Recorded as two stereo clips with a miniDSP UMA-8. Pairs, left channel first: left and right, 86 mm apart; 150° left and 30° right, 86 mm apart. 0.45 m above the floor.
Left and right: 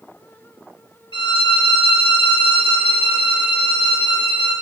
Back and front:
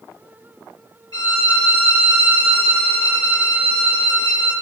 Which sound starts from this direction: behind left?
A violin, at 1.1 s.